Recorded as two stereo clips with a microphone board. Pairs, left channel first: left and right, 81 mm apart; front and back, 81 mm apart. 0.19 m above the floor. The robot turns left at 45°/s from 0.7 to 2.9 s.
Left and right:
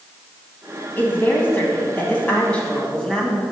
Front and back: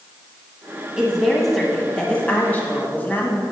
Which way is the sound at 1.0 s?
110° left.